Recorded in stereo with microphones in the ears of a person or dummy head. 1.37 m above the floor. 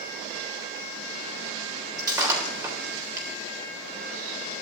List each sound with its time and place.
2.0 s breaking glass: 20° right (ahead or behind), 3.5 m